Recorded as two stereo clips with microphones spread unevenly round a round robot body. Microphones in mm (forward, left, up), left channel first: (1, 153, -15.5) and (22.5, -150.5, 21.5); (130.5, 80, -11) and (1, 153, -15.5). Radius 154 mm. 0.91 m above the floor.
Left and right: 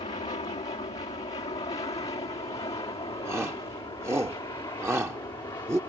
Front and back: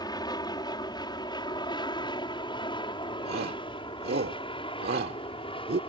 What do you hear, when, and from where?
0.0 s an aircraft: 25° left; by 5.9 s 15° left
3.2 s a shout: 170° right